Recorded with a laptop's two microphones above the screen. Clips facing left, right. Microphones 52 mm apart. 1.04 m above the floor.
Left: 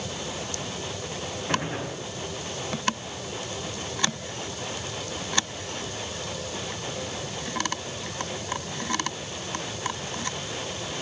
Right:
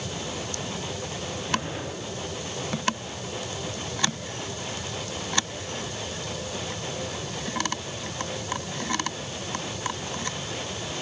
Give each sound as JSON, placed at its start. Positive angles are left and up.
{"t": 1.5, "sound": "a gunshot", "side_deg": 85, "distance_m": 6.5}